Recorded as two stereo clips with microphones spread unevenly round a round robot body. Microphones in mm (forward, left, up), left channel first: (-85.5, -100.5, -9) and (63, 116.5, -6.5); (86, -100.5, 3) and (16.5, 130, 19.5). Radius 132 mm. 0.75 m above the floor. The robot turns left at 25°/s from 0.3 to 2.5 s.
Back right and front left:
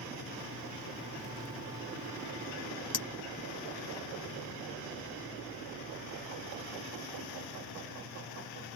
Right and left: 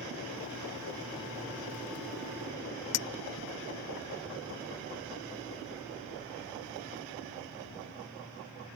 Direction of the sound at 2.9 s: 50° right.